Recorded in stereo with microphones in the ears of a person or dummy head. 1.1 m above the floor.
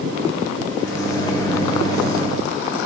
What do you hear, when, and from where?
0.8 s a microwave: 15° left (ahead or behind), 1.3 m